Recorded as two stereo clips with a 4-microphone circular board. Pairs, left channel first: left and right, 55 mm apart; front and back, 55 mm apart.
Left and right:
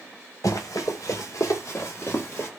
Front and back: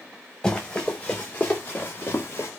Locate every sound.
0.4 s running footsteps: 70° left, 2.5 m; by 2.5 s 40° left, 1.8 m